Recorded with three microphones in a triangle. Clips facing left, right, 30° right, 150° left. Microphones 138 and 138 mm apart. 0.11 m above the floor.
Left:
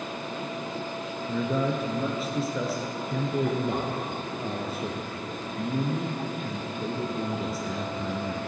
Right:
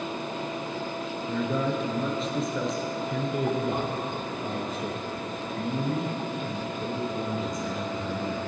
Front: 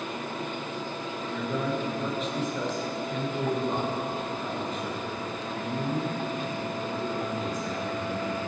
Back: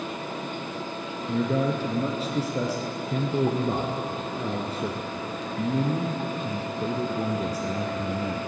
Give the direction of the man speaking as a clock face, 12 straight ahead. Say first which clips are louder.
Left 1 dB, back 6 dB; 6 o'clock.